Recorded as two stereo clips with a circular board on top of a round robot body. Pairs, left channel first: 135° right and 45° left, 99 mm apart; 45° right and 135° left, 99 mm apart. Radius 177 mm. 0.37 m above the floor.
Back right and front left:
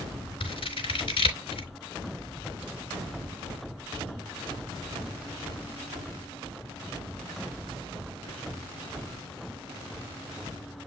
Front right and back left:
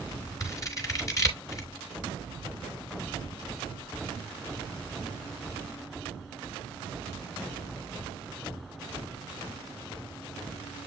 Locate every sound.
0.4 s scissors: 100° right, 3 m